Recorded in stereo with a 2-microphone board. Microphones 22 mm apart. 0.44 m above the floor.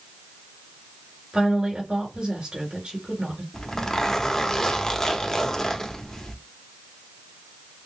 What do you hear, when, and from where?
1.3 s a woman speaking: 45° right (ahead or behind), 2.5 m
3.5 s a zipper: 25° left (ahead or behind), 0.8 m